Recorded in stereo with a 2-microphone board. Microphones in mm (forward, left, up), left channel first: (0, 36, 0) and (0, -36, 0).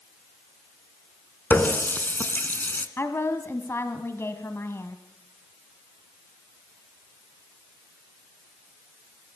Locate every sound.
1.5 s a running tap: 25° left (ahead or behind), 1.4 m
3.0 s a woman speaking: 35° left (ahead or behind), 1.4 m